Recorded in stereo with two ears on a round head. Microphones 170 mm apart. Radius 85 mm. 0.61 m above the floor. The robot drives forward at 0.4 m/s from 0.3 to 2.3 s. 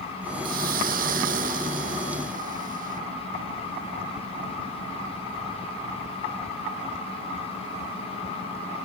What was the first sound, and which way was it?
A hiss, 50° right (ahead or behind).